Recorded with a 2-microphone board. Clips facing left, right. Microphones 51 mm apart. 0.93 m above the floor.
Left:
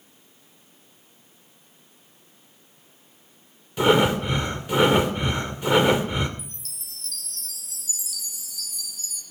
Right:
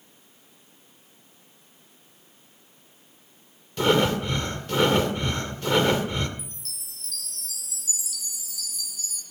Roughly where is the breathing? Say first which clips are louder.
Left 3 dB; centre.